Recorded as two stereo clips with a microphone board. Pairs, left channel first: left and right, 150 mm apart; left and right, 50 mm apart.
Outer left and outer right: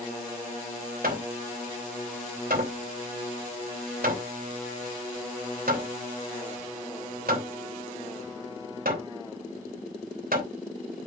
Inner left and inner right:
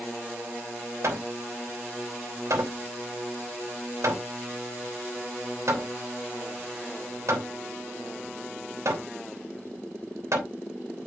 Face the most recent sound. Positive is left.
turn(degrees=-75)  # may be behind; listen again after turning